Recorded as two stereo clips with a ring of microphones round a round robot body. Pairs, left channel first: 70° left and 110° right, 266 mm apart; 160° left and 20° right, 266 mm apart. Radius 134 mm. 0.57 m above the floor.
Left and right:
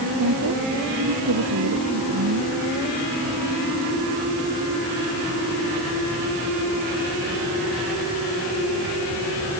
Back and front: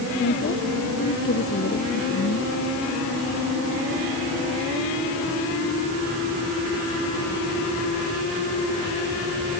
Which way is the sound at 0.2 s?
145° right.